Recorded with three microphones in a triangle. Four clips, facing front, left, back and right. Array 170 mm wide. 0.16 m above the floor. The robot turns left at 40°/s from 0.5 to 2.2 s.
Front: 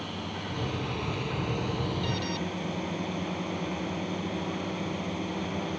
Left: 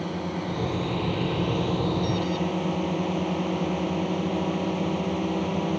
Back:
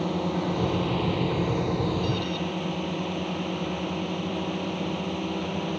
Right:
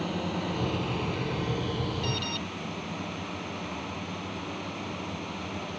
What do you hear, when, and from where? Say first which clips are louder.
0.0 s a drone: left 1 dB, back 10 dB; 175° left; by 5.8 s 105° left
2.0 s an alarm: left 7 dB, back 4 dB; 40° right; by 2.4 s 45° right